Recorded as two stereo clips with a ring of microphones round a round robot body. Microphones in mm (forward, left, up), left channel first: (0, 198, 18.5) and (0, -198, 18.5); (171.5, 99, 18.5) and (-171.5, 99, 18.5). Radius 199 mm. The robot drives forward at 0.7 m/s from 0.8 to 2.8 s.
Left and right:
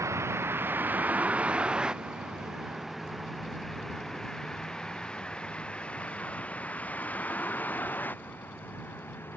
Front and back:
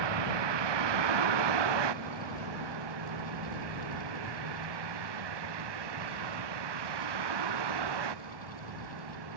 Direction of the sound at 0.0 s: 175° right.